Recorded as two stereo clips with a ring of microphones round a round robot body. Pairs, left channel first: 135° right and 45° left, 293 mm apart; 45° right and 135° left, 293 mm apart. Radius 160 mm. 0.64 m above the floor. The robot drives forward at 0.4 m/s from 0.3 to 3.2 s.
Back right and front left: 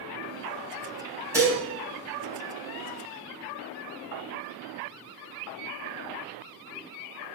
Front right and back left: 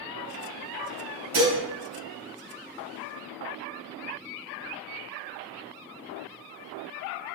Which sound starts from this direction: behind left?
Dishes clattering, at 1.3 s.